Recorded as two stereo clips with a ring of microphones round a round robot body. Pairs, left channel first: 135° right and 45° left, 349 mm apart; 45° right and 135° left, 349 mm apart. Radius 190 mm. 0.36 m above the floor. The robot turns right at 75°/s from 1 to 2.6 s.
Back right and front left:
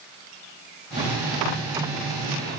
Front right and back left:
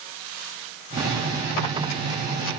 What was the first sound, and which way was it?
Only background noise.